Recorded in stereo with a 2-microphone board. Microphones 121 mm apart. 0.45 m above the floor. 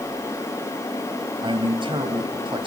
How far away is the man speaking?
About 2.5 m.